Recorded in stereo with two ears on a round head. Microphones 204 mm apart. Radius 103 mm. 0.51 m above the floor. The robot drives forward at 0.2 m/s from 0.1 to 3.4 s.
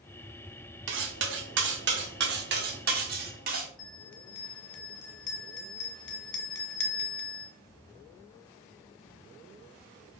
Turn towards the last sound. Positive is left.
turn(degrees=55)  # may be behind; listen again after turning